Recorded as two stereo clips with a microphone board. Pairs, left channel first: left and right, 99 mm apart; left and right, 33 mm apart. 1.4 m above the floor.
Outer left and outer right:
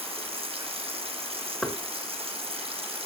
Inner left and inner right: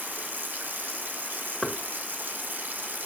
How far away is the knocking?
About 1.7 m.